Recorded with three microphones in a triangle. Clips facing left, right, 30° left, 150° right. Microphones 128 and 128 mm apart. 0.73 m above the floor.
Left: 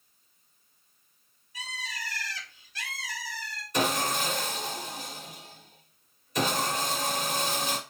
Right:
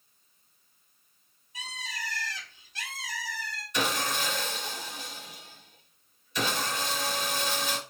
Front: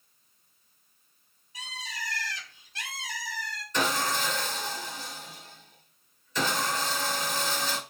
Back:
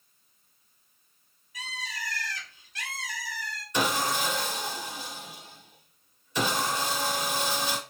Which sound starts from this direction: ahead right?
A bird, at 1.5 s.